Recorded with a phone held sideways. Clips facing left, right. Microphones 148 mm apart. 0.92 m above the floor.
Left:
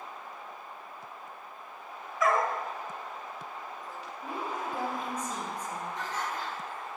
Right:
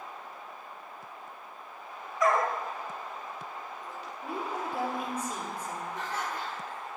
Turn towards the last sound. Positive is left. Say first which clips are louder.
# right 1 dB
turn(degrees=-10)  # may be behind; listen again after turning